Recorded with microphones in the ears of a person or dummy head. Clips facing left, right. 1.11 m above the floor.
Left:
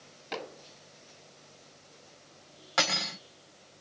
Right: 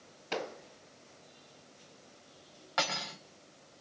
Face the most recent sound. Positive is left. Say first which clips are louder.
# left 3 dB
turn(degrees=40)  # may be behind; listen again after turning